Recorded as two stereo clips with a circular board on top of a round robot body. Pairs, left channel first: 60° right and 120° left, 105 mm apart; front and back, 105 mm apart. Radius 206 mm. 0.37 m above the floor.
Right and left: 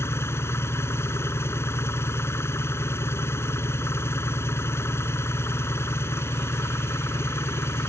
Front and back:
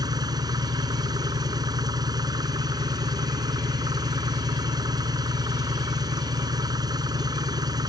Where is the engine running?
125° right.